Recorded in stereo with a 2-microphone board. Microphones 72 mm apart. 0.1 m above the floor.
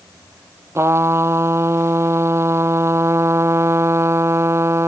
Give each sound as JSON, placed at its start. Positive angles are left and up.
{"t": 0.8, "sound": "a trumpet", "side_deg": -40}